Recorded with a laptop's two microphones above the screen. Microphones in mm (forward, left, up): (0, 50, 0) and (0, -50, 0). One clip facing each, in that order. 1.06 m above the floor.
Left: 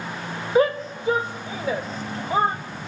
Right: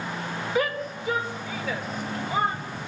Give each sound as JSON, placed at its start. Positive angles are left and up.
{"t": 0.6, "sound": "a shout", "side_deg": 30, "distance_m": 1.2}